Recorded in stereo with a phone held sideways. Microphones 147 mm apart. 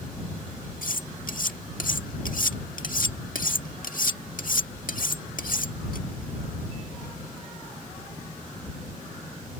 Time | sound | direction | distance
0.8 | cutlery clinking | 70° left (ahead or behind) | ?